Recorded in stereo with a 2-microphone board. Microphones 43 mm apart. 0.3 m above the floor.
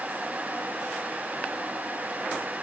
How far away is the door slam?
No door slam in this recording.